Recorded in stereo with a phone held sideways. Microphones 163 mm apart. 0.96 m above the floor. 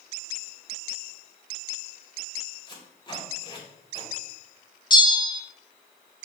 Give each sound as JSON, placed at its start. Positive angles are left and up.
{"t": 2.7, "sound": "tape being pulled", "side_deg": 30, "distance_m": 2.5}
{"t": 4.9, "sound": "a bell", "side_deg": 30, "distance_m": 0.9}